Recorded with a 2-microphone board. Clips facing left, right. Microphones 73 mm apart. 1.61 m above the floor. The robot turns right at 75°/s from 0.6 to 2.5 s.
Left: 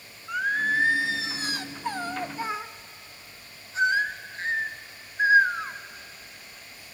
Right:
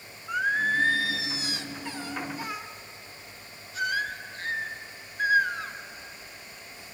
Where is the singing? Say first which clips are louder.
Even; straight ahead, 0.9 m; by 5.7 s 140° left, 0.9 m.